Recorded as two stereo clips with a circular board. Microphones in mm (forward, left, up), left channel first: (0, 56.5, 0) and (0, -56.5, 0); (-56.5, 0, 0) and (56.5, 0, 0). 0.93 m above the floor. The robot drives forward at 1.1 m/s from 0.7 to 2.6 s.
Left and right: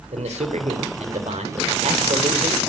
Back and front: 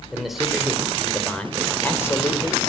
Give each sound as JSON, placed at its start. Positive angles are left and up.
{"t": 0.1, "sound": "a man speaking", "azimuth_deg": -90, "distance_m": 3.5}